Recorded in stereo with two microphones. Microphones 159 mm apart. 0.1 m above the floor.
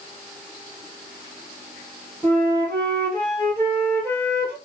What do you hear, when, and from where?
2.2 s a flute: 10° left (ahead or behind), 1.7 m